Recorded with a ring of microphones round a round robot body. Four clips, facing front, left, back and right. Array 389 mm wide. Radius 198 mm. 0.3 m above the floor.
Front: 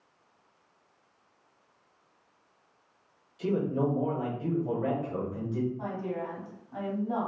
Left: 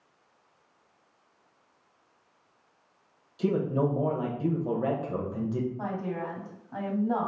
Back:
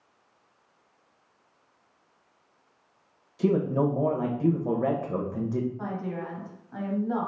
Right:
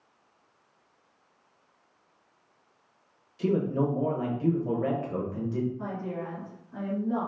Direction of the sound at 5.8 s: 100° left.